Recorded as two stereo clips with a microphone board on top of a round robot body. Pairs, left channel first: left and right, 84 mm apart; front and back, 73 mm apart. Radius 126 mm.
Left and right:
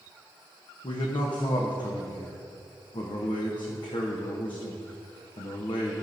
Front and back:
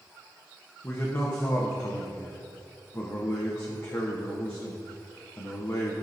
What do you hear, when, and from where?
0.8 s a man speaking: 60° left, 1.0 m